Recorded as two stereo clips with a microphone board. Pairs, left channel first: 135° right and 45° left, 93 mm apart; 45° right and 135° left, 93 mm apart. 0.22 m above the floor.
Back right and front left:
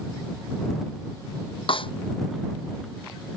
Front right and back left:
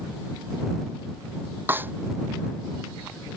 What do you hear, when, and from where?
1.7 s a snare drum: 155° right